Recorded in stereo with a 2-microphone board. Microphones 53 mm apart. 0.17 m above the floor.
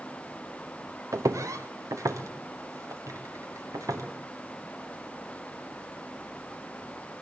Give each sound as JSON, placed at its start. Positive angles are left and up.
{"t": 1.1, "sound": "footsteps", "side_deg": -80, "distance_m": 1.3}